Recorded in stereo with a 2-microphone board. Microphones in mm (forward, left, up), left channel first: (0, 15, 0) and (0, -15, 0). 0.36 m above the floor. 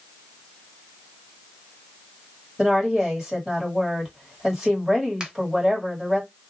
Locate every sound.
2.6 s a woman speaking: 10° right (ahead or behind), 1.8 m
5.2 s a finger snap: 25° right (ahead or behind), 0.9 m